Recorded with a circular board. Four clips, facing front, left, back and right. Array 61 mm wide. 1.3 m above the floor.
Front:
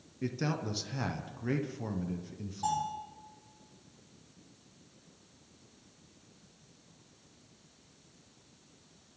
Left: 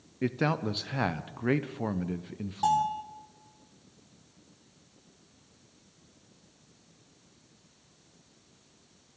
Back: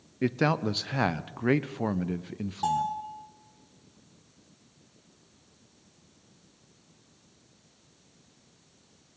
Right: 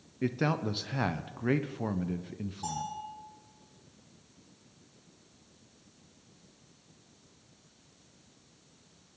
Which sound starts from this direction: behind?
A man speaking, at 0.2 s.